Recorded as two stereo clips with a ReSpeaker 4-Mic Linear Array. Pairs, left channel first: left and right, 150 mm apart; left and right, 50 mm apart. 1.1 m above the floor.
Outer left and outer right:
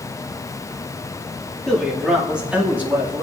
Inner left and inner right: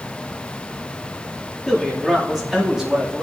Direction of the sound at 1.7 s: Centre (ahead or behind).